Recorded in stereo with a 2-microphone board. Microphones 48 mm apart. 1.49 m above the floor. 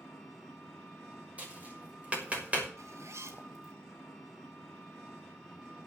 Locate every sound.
0.0 s an engine running: 5° left (ahead or behind), 7 m
1.4 s tapping: 30° right (ahead or behind), 6 m
2.8 s a zipper: 80° right, 3 m